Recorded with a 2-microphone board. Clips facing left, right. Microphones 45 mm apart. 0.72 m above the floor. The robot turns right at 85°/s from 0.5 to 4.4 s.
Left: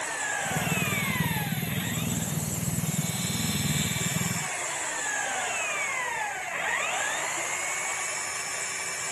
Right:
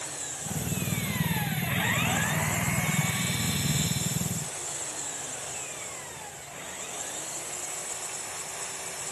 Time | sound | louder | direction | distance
0.0 | an engine running | left 10 dB | 100° left | ?